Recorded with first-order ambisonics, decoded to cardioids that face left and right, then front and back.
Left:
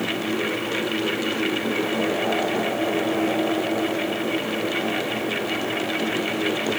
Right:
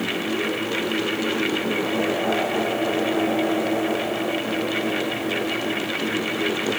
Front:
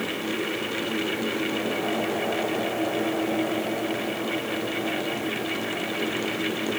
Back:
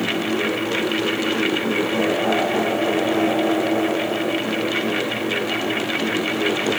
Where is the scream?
No scream in this recording.